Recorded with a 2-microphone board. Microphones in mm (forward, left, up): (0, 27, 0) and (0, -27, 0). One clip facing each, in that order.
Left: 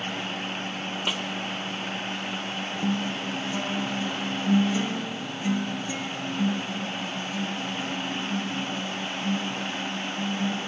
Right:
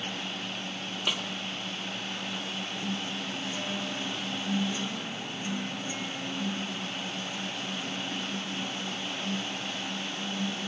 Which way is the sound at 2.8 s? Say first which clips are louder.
Left 9 dB; 80° left.